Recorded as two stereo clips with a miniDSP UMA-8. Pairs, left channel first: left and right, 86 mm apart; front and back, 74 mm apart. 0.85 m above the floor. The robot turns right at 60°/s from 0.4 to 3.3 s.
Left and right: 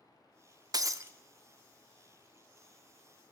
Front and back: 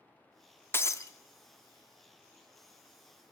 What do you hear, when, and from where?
0.7 s breaking glass: 55° right, 0.5 m; by 1.1 s 35° right, 0.5 m